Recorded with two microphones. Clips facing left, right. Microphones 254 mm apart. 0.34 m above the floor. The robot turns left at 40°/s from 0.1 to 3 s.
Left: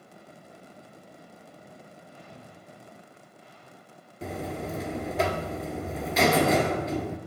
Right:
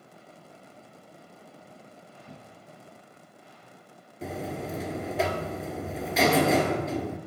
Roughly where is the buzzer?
Centre.